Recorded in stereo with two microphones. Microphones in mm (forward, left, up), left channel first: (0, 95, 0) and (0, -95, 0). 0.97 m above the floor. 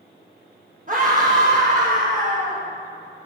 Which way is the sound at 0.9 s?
45° right (ahead or behind).